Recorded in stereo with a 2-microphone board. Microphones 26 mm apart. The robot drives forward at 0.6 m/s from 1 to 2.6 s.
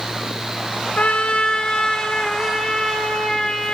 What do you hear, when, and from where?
1.0 s a trumpet: 60° left (ahead or behind), 0.6 m; by 3.7 s 20° left (ahead or behind), 1.4 m